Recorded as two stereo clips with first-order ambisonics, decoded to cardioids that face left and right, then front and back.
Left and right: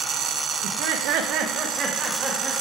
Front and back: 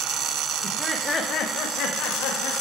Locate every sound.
0.6 s laughter: 120° right, 0.9 m; by 2.5 s 20° right, 2.5 m